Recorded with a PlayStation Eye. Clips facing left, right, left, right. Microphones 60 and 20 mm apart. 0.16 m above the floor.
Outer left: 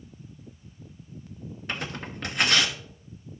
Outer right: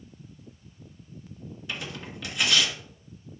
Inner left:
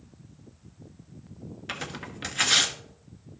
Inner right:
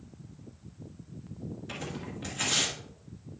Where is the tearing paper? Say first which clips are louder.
Outer left 3 dB, inner left 5 dB; 50° left (ahead or behind), 1.3 m.